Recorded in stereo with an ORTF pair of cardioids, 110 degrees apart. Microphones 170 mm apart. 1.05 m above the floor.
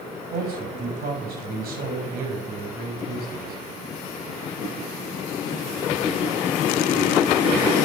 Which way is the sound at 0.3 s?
70° right.